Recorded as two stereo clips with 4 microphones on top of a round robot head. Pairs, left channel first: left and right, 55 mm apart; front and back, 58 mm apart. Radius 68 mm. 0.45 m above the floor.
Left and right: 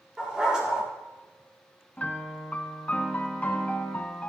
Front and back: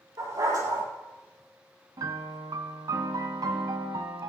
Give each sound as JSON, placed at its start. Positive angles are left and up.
{"t": 0.2, "sound": "a dog barking", "azimuth_deg": -165, "distance_m": 5.5}
{"t": 2.0, "sound": "a piano", "azimuth_deg": 155, "distance_m": 0.8}